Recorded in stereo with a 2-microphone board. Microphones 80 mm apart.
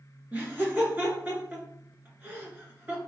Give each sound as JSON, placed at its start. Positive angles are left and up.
{"t": 0.3, "sound": "laughter", "side_deg": -20, "distance_m": 1.6}